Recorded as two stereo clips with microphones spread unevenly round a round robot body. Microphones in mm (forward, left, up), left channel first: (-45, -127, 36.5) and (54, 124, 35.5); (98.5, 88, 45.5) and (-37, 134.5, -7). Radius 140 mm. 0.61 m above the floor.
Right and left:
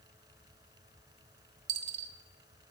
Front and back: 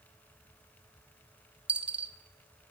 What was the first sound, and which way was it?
A dropped coin, 75° left.